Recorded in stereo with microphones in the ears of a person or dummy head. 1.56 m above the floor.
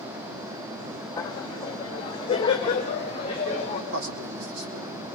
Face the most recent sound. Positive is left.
turn(degrees=-70)  # may be behind; listen again after turning